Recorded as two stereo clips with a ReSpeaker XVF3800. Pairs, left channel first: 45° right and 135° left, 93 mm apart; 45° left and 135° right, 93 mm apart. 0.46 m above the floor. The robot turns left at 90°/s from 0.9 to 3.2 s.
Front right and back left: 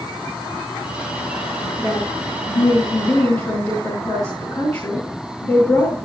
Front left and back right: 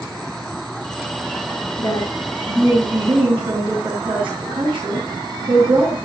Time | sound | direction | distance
1.8 | a woman speaking | 35° left | 6.5 m